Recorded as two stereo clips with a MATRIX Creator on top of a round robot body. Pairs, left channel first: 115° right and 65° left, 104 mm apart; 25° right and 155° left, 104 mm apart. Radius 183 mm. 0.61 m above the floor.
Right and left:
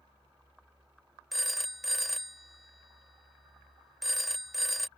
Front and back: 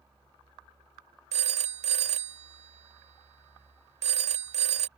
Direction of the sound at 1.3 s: 160° left.